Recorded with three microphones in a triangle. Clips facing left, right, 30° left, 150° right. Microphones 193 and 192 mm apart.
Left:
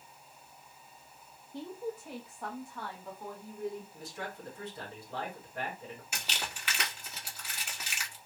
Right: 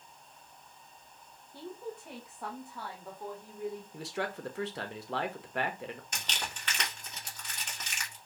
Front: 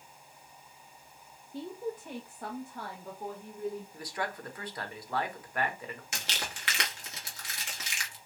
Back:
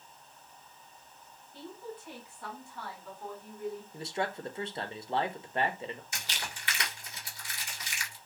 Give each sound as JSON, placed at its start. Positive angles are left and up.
{"t": 1.5, "sound": "a woman speaking", "azimuth_deg": 25, "distance_m": 0.8}
{"t": 3.9, "sound": "a man speaking", "azimuth_deg": -85, "distance_m": 0.9}
{"t": 6.1, "sound": "crumpling", "azimuth_deg": 5, "distance_m": 1.7}